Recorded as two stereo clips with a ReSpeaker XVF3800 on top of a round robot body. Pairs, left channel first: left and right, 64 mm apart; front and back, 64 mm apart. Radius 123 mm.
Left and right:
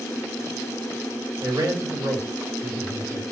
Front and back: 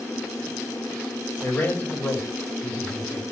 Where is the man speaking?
55° right, 2 m.